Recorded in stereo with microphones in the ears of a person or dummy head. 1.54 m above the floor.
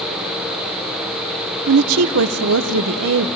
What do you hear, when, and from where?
1.7 s a woman speaking: 80° right, 0.8 m